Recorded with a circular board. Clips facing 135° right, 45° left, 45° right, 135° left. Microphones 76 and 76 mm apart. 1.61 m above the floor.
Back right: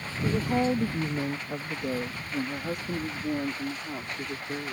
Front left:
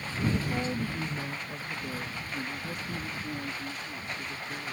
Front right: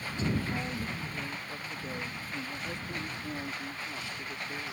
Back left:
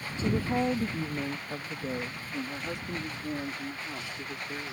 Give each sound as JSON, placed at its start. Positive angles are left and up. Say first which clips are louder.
{"t": 0.2, "sound": "a woman speaking", "louder": "back right 5 dB, back left 6 dB", "azimuth_deg": 180}